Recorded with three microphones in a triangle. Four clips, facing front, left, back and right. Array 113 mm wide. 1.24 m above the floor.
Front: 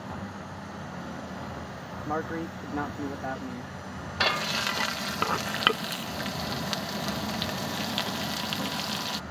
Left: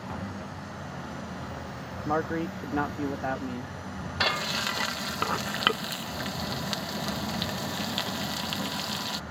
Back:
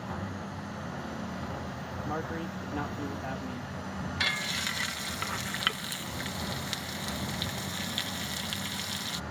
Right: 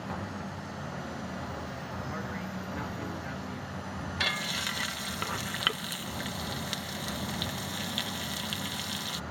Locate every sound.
2.0 s a man speaking: 70° left
4.2 s frying: 35° left